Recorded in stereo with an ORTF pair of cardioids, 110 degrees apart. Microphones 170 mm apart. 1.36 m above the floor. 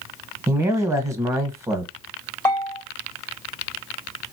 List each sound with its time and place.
0.5 s a man speaking: 15° right, 1.1 m
2.5 s a bell: 15° left, 0.8 m